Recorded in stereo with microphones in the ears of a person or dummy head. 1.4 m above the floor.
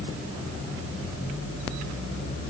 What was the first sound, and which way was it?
Only background noise.